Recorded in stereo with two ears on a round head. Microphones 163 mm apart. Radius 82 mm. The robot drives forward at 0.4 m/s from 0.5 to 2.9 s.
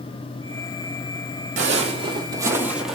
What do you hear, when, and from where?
1.6 s footsteps: 40° right (ahead or behind), 1.2 m; by 3.0 s centre (ahead or behind), 1.0 m